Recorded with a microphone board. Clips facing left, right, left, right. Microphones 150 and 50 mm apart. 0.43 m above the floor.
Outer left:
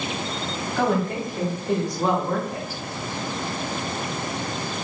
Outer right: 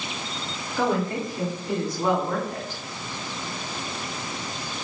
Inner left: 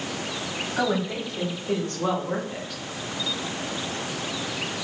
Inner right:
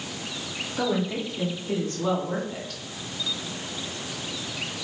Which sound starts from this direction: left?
A woman speaking, at 0.8 s.